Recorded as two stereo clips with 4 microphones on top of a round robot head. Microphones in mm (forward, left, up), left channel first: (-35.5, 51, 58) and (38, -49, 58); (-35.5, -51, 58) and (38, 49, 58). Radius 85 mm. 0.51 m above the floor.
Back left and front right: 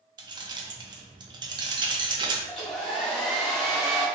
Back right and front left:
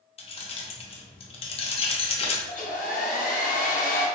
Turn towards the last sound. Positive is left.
turn(degrees=-145)